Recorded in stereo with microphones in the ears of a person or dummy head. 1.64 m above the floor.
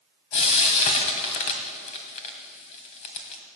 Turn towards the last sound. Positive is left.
turn(degrees=35)  # may be behind; listen again after turning